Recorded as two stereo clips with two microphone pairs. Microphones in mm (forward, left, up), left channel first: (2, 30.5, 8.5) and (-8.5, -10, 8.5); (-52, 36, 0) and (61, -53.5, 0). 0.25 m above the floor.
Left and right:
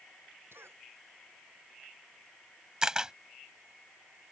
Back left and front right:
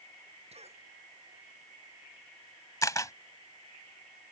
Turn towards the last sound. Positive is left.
turn(degrees=-165)